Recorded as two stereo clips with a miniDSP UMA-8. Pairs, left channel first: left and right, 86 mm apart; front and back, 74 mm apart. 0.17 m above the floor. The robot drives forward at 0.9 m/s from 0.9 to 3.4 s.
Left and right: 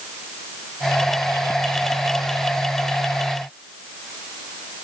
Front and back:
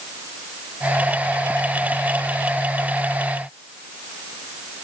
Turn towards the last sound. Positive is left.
No sound to turn to.